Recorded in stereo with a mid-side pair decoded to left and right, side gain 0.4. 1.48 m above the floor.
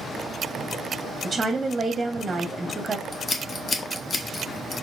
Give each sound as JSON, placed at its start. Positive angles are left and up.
{"t": 1.2, "sound": "a woman speaking", "azimuth_deg": -30, "distance_m": 0.7}
{"t": 3.1, "sound": "scissors", "azimuth_deg": 45, "distance_m": 0.8}